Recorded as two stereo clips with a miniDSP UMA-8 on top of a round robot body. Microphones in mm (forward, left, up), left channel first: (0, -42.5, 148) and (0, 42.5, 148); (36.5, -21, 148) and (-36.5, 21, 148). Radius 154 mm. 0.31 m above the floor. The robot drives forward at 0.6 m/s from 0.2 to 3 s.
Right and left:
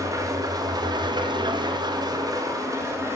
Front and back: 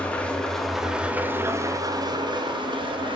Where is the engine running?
45° left, 1.1 m; by 3.2 s 145° left, 1.3 m.